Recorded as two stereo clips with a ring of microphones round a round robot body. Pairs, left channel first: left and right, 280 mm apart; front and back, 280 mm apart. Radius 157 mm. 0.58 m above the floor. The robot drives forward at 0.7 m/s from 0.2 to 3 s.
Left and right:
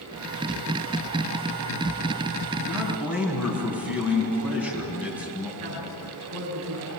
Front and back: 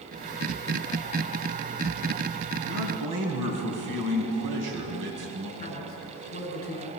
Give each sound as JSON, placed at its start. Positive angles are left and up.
{"t": 2.7, "sound": "a man speaking", "azimuth_deg": -175, "distance_m": 5.0}
{"t": 5.6, "sound": "a man speaking", "azimuth_deg": -60, "distance_m": 10.0}